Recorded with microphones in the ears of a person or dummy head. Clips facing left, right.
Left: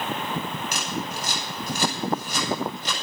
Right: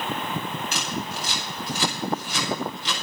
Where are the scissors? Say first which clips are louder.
Even; 45° left (ahead or behind), 7.5 m.